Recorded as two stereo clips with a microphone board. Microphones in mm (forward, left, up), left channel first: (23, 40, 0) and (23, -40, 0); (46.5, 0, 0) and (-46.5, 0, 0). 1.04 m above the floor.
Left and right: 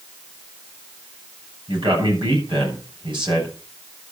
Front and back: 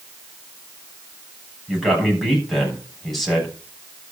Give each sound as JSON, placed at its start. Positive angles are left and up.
{"t": 1.7, "sound": "a man speaking", "azimuth_deg": -90, "distance_m": 7.0}